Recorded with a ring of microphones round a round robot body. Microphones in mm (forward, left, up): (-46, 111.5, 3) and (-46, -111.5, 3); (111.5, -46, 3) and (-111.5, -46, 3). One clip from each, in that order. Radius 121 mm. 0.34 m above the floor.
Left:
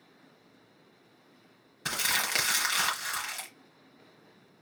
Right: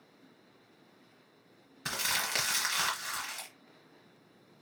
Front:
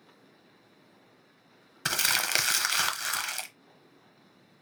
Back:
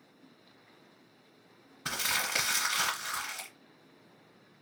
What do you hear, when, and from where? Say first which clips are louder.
1.9 s crumpling: left 3 dB, front 4 dB; 10° left, 1.0 m